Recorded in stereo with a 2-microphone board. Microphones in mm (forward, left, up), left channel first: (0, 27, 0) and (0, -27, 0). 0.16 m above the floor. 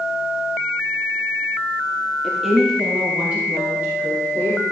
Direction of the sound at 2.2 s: Centre (ahead or behind).